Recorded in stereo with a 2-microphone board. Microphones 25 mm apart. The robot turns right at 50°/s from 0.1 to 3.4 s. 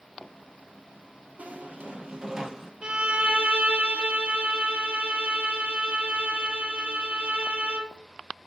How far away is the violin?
About 1.6 m.